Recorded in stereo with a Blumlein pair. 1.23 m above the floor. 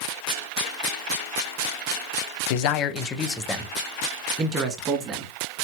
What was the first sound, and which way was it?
A man speaking, 50° left.